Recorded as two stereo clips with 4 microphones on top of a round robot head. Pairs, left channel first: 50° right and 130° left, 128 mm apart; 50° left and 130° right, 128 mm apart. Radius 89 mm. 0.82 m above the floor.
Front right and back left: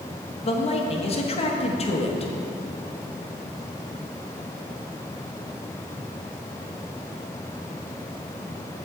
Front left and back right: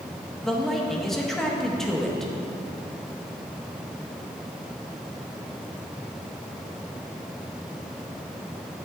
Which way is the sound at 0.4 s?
35° right.